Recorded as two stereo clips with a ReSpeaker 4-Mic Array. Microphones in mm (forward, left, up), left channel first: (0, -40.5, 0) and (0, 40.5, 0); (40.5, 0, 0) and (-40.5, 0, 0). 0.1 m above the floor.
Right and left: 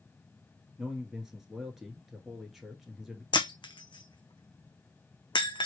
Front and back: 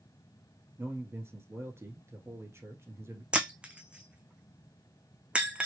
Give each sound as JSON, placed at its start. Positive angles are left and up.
{"t": 0.8, "sound": "a man speaking", "azimuth_deg": 170, "distance_m": 1.2}
{"t": 3.3, "sound": "breaking glass", "azimuth_deg": -105, "distance_m": 0.6}